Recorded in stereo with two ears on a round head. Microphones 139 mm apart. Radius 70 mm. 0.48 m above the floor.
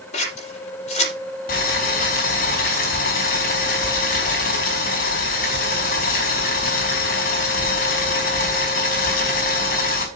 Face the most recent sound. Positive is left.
turn(degrees=55)  # may be behind; listen again after turning